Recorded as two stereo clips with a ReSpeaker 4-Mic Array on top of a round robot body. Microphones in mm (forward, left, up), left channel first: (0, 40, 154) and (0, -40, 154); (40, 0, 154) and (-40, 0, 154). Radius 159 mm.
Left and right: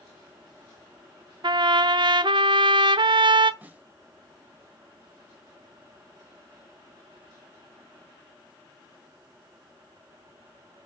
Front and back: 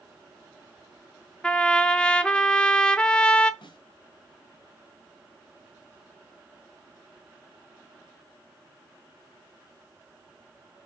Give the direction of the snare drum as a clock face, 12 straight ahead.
1 o'clock.